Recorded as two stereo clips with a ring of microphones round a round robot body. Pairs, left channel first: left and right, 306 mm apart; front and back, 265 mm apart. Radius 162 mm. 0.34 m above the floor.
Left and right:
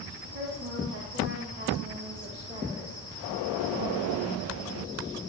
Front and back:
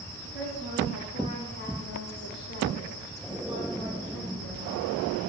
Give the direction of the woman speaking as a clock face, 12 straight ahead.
2 o'clock.